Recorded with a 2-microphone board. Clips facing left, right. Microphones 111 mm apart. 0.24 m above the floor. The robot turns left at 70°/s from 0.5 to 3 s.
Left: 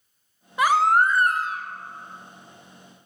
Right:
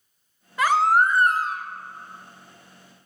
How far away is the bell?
No bell in this recording.